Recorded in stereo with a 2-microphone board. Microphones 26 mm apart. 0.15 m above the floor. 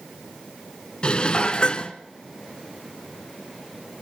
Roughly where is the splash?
I don't hear a splash.